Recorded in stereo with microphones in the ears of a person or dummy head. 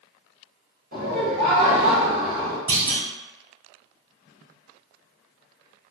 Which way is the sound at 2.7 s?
20° right (ahead or behind).